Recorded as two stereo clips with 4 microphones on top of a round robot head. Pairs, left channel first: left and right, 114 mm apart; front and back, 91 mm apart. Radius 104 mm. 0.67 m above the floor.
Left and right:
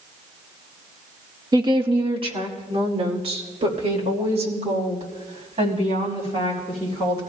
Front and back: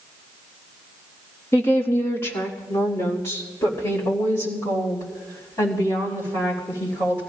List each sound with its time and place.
1.5 s a woman speaking: 50° right, 1.3 m; by 7.2 s 65° right, 8 m